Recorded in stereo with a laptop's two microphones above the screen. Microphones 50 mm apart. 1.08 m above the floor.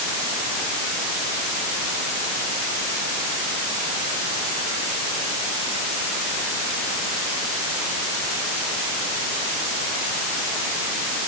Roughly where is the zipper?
I don't hear a zipper.